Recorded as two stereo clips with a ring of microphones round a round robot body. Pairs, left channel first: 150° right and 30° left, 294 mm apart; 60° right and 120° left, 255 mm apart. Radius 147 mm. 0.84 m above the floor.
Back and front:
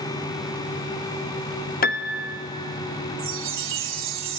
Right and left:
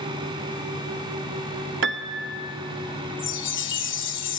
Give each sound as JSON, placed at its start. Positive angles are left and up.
{"t": 1.8, "sound": "a piano", "azimuth_deg": 155, "distance_m": 0.8}
{"t": 3.2, "sound": "a chime", "azimuth_deg": -20, "distance_m": 1.4}